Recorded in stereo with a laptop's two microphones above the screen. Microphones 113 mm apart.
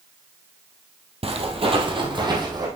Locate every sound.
1.2 s footsteps: 60° right (ahead or behind), 1.7 m; by 2.7 s 35° right (ahead or behind), 2.5 m